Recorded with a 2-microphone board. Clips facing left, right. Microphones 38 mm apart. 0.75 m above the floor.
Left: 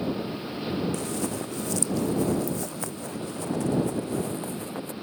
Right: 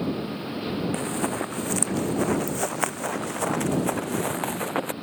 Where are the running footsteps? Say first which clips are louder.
Right 3 dB; 40° right (ahead or behind); by 4.9 s 75° right (ahead or behind).